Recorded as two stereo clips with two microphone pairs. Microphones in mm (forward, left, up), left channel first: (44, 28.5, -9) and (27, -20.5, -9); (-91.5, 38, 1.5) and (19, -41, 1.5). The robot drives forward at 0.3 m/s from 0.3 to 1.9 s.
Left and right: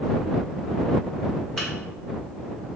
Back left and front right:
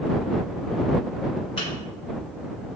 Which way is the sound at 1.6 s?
150° left.